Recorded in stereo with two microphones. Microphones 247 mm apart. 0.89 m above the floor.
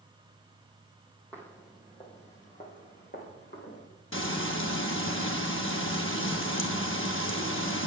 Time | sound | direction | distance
1.3 | footsteps | 5° left (ahead or behind) | 2 m
4.1 | frying | 55° left (ahead or behind) | 1.1 m